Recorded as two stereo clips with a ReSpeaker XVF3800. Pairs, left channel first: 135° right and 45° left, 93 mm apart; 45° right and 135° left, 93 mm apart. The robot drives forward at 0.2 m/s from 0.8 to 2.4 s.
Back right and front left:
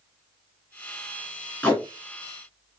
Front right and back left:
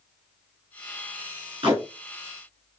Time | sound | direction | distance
1.6 | tape being pulled | 150° left | 1.7 m